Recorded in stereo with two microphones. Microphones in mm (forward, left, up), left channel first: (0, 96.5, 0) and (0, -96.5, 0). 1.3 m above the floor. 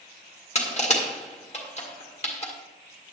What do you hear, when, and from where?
0.6 s crushing: 35° left (ahead or behind), 1.8 m